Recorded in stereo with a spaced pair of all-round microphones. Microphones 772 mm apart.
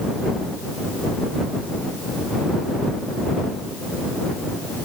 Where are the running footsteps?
I don't hear running footsteps.